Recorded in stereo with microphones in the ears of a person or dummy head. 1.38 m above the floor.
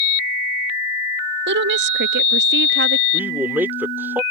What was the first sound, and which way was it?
A woman speaking, 50° right (ahead or behind).